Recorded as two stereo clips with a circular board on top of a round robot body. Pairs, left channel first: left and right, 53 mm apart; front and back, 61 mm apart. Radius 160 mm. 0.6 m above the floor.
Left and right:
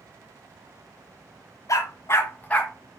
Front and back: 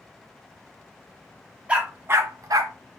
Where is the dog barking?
110° left, 1.2 m; by 2.7 s 170° left, 1.1 m.